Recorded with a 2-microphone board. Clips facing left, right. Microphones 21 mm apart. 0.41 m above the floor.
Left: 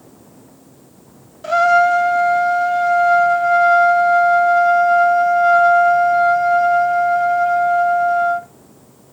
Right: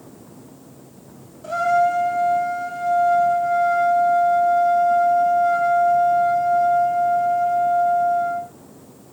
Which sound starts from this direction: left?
A trumpet, at 1.4 s.